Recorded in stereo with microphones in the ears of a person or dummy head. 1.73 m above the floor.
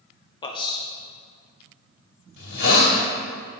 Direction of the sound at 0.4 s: 25° left (ahead or behind).